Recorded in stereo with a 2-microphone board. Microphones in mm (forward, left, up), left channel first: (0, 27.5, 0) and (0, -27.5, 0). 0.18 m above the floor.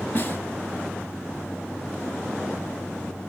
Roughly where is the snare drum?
Left.